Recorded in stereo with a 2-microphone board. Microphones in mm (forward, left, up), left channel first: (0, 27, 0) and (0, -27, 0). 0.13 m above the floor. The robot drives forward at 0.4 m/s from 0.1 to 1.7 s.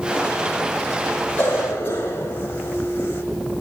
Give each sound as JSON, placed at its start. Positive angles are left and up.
{"t": 1.4, "sound": "a cough", "side_deg": 35, "distance_m": 8.0}